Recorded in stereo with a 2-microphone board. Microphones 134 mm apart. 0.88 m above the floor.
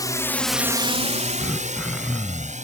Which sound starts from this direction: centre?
Throat clearing, at 1.4 s.